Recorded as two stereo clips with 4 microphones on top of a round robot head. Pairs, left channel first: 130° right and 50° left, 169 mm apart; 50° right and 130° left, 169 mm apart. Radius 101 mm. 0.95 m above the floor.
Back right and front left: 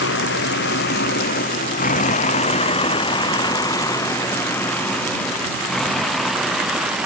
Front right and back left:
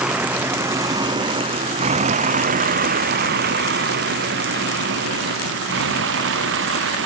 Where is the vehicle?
145° right; by 7.1 s 135° left.